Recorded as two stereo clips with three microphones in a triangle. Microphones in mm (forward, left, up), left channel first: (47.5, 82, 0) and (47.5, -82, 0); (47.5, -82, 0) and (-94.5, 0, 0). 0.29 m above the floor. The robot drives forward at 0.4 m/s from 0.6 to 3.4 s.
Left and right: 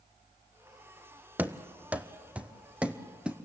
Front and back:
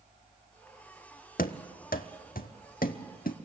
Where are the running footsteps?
10° right, 0.8 m; by 3.4 s 5° right, 1.0 m.